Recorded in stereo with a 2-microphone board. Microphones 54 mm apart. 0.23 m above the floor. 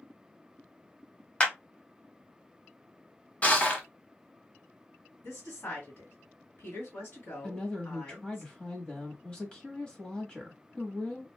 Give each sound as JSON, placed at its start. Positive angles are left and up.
{"t": 1.4, "sound": "a clap", "side_deg": 25, "distance_m": 0.8}
{"t": 3.4, "sound": "crushing", "side_deg": 25, "distance_m": 1.0}
{"t": 5.2, "sound": "a woman speaking", "side_deg": 45, "distance_m": 2.0}
{"t": 7.4, "sound": "a woman speaking", "side_deg": 20, "distance_m": 1.0}